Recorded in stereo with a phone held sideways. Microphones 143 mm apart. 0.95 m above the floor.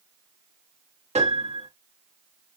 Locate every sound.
1.1 s a piano: 50° right (ahead or behind), 1.9 m